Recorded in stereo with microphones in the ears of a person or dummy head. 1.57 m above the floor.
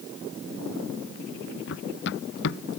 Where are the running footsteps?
65° left (ahead or behind).